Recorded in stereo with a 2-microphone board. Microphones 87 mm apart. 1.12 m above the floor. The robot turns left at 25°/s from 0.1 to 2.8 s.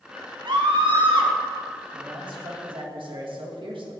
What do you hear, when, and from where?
0.5 s a scream: 65° right (ahead or behind), 2.5 m; by 1.3 s 80° right, 2.5 m
1.9 s a man speaking: 55° right (ahead or behind), 1.9 m; by 4.0 s 70° right (ahead or behind), 1.9 m